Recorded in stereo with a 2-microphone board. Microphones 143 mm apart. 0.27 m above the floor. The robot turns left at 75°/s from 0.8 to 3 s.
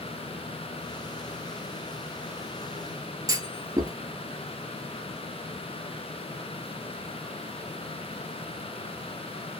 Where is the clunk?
25° right (ahead or behind), 0.8 m.